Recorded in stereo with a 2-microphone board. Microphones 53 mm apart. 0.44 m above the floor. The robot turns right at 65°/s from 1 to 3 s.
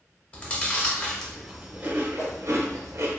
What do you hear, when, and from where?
0.3 s chewing: 25° left (ahead or behind), 0.6 m; by 3.2 s 70° right (ahead or behind), 0.6 m
2.2 s a whoosh: 75° left (ahead or behind), 1.1 m; by 2.4 s 60° left (ahead or behind), 1.1 m